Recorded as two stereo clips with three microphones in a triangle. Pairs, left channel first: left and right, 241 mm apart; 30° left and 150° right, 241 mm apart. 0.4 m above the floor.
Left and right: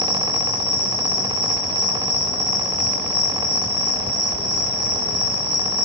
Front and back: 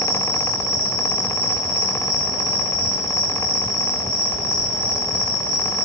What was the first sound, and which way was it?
An insect, 100° right.